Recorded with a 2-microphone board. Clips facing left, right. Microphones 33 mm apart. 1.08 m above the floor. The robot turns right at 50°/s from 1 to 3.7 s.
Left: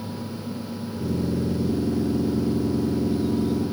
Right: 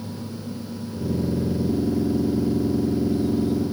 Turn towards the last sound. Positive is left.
No sound to turn to.